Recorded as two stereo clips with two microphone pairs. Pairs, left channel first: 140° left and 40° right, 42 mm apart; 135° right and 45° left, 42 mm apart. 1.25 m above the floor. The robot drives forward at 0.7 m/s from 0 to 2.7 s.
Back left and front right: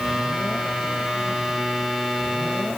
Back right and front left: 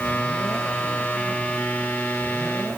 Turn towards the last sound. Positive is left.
No sound to turn to.